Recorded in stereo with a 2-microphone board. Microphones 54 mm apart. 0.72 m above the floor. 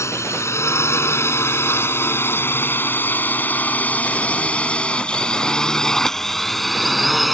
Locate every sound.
0.0 s a drone: 60° left (ahead or behind); by 7.3 s centre (ahead or behind)